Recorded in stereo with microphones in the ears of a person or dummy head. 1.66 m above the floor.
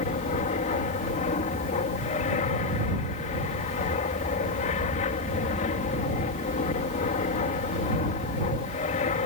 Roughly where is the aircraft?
Left.